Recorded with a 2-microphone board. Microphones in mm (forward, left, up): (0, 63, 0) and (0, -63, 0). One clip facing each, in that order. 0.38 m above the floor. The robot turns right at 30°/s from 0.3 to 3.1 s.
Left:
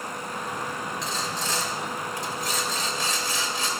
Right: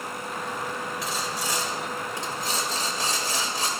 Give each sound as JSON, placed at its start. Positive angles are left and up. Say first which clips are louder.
{"t": 1.0, "sound": "sawing", "louder": "even", "azimuth_deg": -175, "distance_m": 1.5}